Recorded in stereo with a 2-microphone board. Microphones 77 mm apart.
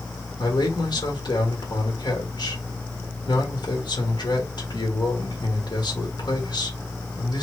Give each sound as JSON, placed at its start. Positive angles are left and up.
{"t": 0.4, "sound": "a man speaking", "side_deg": 65, "distance_m": 1.5}